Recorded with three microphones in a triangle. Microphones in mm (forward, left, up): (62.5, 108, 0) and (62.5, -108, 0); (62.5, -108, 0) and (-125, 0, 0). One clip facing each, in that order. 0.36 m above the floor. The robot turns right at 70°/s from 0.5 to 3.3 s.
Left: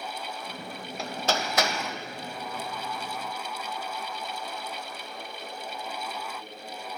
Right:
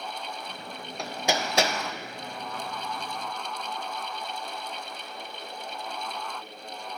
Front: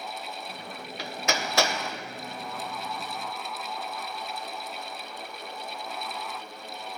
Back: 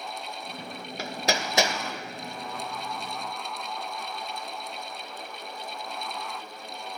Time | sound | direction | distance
1.0 | hammering | 175° left | 0.7 m